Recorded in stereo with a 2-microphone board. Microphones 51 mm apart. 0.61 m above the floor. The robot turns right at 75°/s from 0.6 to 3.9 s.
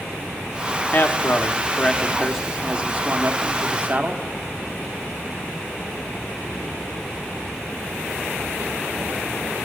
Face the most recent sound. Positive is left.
turn(degrees=-60)